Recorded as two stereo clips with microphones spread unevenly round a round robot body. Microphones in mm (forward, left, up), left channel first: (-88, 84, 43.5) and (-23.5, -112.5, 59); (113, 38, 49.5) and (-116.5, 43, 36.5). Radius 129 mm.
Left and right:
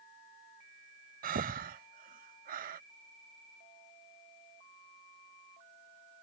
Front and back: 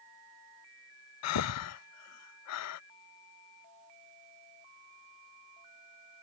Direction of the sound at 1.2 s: 15° right.